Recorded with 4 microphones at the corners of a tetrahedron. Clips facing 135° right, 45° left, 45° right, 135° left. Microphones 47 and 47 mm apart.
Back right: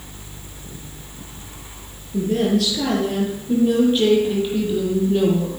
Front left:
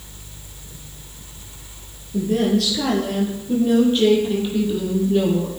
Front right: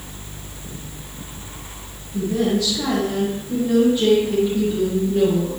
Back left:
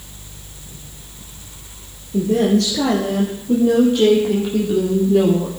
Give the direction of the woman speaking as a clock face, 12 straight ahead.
8 o'clock.